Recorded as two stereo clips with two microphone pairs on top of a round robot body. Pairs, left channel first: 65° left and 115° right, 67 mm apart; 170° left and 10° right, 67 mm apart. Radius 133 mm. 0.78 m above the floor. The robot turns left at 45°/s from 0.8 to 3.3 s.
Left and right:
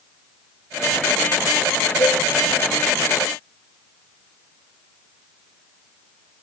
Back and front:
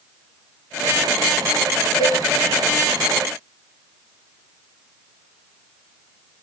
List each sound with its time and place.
2.0 s a cowbell: 120° left, 5.5 m; by 2.2 s 110° left, 5.5 m